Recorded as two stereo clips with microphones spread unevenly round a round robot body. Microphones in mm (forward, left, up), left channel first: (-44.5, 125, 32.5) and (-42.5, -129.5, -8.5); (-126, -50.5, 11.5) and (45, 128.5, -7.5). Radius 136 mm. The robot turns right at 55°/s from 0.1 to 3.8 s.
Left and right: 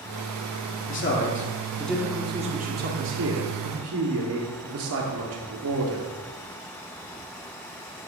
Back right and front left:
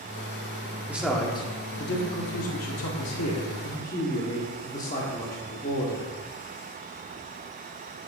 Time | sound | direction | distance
0.9 | a man speaking | 125° left | 1.8 m